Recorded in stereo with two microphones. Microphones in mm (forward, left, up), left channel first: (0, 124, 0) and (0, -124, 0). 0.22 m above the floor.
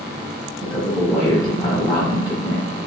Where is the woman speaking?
20° left (ahead or behind), 1.5 m.